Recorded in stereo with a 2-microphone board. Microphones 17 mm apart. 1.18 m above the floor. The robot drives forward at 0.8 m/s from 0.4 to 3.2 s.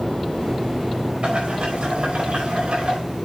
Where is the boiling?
70° right (ahead or behind), 4.5 m; by 3.0 s 90° right, 4 m.